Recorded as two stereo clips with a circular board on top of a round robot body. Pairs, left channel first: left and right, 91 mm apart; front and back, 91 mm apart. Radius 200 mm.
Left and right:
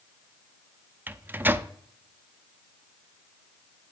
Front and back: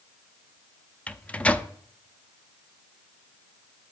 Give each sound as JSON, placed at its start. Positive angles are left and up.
{"t": 1.1, "sound": "a microwave", "azimuth_deg": -60, "distance_m": 0.6}